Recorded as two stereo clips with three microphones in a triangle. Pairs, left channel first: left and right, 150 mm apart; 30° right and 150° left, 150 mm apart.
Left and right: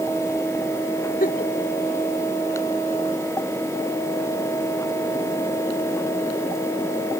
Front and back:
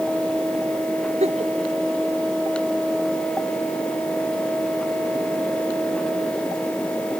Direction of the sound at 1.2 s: 110° left.